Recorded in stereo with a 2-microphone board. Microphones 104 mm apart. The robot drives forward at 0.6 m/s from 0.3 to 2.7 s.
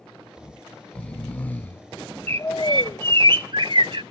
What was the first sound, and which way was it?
Snoring, 10° left (ahead or behind).